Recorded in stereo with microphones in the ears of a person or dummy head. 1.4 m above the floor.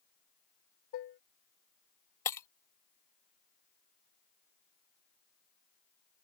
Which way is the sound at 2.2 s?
10° left (ahead or behind).